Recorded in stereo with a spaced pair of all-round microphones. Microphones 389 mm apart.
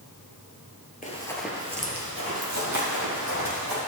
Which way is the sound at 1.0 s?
20° left (ahead or behind).